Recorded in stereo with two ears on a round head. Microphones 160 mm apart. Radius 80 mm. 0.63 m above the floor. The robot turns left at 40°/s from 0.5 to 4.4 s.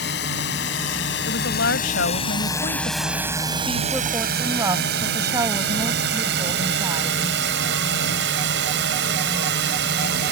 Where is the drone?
70° left (ahead or behind); by 10.3 s 65° right (ahead or behind).